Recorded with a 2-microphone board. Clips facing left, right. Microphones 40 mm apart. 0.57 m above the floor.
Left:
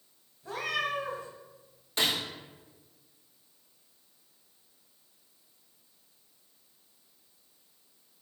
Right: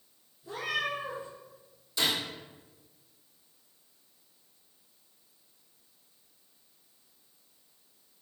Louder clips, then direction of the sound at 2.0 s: Left 1 dB; 50° left (ahead or behind).